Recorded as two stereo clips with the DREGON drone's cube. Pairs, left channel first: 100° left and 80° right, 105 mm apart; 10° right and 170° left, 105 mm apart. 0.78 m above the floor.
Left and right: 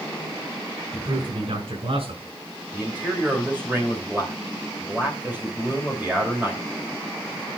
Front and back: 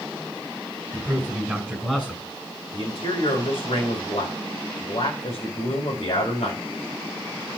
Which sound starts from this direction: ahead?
A man speaking, at 2.7 s.